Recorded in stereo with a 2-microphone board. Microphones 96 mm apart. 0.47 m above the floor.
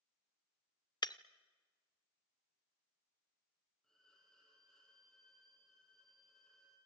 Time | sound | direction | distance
1.0 | breaking glass | 50° left (ahead or behind) | 0.6 m
3.8 | a violin | 5° left (ahead or behind) | 8 m